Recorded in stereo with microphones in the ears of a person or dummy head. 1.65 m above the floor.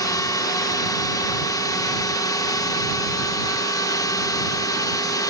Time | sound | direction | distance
0.0 | a drone | 20° left (ahead or behind) | ?